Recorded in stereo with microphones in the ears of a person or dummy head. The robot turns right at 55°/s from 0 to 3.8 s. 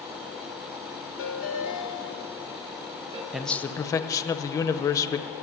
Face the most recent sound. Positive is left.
turn(degrees=20)  # may be behind; listen again after turning